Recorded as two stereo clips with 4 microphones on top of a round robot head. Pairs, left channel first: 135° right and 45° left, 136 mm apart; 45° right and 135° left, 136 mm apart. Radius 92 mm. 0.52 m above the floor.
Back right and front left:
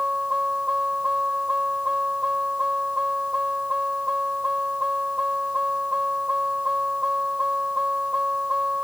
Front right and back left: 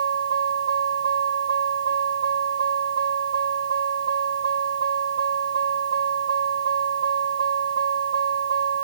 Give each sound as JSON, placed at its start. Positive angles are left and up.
{"t": 0.0, "sound": "a vehicle", "azimuth_deg": 130}